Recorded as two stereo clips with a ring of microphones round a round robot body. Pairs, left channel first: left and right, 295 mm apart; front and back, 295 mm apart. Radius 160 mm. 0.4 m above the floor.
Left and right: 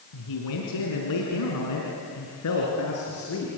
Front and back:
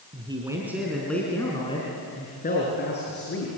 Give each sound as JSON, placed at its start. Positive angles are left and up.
{"t": 0.1, "sound": "a man speaking", "azimuth_deg": 110, "distance_m": 4.0}